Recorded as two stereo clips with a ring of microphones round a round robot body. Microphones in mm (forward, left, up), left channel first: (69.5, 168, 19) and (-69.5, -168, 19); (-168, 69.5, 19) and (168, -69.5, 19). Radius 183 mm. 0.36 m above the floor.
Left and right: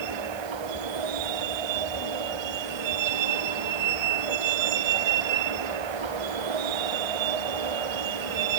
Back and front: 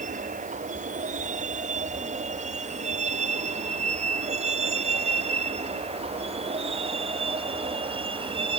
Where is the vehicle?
95° right; by 8.6 s 100° right.